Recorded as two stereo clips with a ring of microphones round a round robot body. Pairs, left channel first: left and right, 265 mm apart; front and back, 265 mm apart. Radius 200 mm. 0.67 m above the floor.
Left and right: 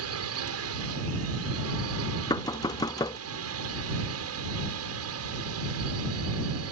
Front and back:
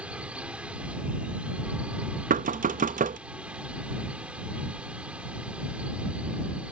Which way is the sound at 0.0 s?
95° right.